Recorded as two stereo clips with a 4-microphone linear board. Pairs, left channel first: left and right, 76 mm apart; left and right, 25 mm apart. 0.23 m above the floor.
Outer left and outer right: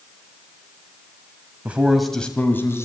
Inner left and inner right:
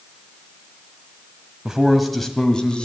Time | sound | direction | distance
1.6 | a man speaking | 20° right (ahead or behind) | 1.3 m